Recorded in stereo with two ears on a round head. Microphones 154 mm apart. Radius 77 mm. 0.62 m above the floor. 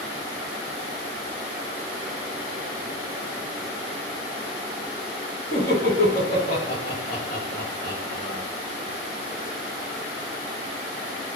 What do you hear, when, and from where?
5.5 s laughter: 35° left (ahead or behind), 1.1 m